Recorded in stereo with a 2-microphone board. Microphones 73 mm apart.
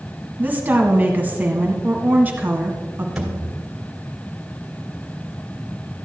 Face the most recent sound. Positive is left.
turn(degrees=-5)  # may be behind; listen again after turning